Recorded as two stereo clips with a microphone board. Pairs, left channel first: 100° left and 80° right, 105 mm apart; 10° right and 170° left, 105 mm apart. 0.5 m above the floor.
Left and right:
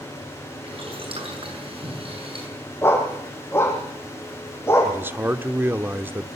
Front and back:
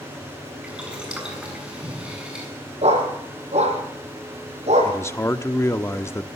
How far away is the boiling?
About 6.5 m.